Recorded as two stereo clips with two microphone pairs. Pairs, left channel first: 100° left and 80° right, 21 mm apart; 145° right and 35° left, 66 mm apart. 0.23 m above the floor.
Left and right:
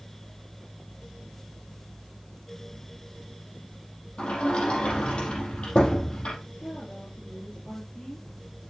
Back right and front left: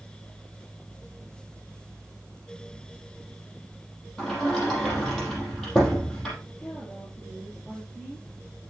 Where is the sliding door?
130° left, 5.5 m.